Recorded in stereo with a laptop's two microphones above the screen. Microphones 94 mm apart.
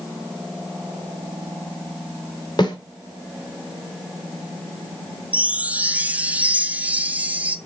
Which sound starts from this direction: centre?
A chime, at 5.3 s.